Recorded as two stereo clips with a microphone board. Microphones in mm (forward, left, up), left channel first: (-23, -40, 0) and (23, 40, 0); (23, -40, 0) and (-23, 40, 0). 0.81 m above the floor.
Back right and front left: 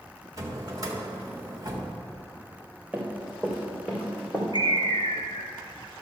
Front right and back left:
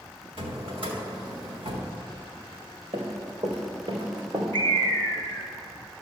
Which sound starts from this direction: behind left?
Running footsteps, at 2.9 s.